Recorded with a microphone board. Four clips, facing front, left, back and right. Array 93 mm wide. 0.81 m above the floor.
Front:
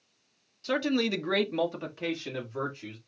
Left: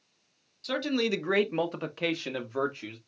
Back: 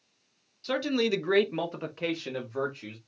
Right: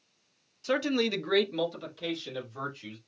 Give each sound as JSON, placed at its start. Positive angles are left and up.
{"t": 0.6, "sound": "a man speaking", "azimuth_deg": -80, "distance_m": 0.9}